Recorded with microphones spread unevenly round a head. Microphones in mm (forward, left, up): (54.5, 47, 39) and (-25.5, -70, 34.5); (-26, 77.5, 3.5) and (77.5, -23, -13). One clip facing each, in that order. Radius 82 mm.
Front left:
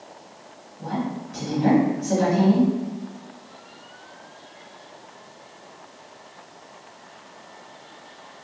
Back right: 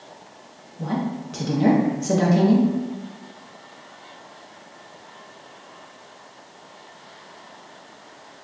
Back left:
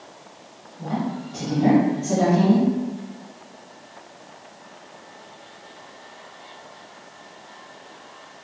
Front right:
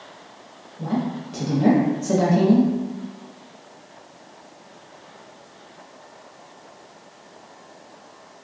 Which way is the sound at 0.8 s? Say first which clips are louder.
Back right 2 dB, front right 2 dB; 95° right.